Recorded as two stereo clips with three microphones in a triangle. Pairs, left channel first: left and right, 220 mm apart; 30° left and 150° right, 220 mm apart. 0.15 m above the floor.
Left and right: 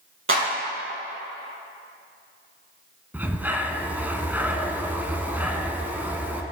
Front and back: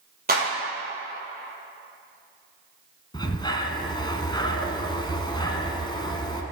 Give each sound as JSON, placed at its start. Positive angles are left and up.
{"t": 0.3, "sound": "a clap", "azimuth_deg": -105, "distance_m": 4.5}
{"t": 3.1, "sound": "breathing", "azimuth_deg": -15, "distance_m": 1.1}